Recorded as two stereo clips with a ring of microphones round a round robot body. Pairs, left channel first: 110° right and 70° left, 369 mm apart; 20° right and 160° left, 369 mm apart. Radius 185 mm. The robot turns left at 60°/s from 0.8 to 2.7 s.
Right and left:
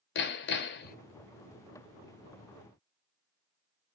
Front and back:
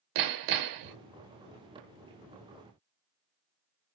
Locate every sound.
0.1 s hammering: 170° right, 0.6 m; by 1.0 s straight behind, 0.6 m